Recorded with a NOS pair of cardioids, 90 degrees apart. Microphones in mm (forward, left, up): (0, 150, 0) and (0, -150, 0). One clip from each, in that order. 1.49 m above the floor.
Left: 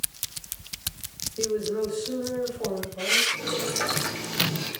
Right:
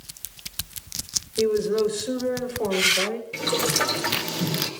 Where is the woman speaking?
55° right, 5.5 m; by 3.2 s 65° right, 6 m.